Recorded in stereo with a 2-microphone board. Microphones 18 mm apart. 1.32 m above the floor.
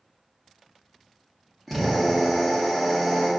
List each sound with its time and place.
1.7 s a drill: 5° left (ahead or behind), 1.3 m